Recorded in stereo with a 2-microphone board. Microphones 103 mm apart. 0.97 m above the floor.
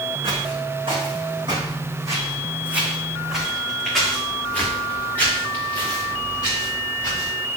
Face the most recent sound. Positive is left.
turn(degrees=35)  # may be behind; listen again after turning